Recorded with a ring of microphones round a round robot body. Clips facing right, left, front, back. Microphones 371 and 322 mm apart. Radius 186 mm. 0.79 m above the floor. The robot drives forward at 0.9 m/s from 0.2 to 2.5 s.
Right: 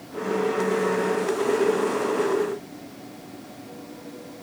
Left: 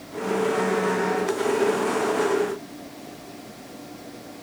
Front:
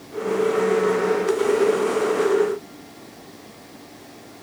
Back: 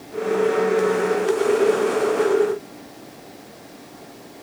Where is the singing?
I don't hear singing.